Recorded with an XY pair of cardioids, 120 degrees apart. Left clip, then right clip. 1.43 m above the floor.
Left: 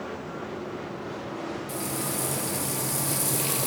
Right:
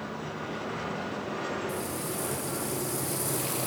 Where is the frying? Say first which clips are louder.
Left 2 dB; 40° left, 2.5 m.